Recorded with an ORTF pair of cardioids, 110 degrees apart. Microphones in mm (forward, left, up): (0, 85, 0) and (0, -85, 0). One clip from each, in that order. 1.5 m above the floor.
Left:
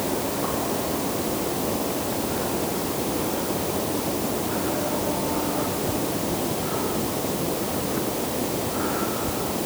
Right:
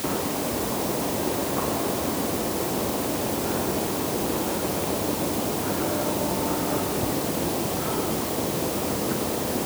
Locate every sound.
Only background noise.